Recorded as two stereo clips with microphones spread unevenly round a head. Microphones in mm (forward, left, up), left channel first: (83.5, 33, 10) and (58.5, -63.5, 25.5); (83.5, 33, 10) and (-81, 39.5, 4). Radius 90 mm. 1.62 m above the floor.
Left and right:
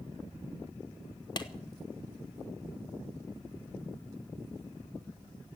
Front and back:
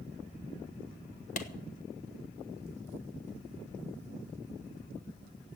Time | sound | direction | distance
1.4 | a clap | 30° left | 1.2 m